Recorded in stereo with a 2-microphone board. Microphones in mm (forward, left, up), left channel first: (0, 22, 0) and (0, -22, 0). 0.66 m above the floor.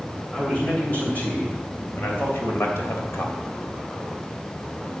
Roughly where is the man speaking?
Left.